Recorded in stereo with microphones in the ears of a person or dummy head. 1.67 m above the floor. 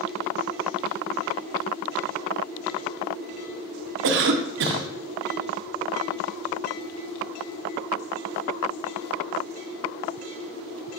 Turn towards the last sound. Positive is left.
turn(degrees=-60)  # may be behind; listen again after turning